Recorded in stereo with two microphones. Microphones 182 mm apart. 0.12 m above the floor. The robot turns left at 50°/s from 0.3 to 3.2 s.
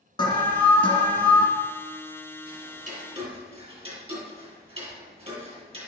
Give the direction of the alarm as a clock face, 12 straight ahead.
8 o'clock.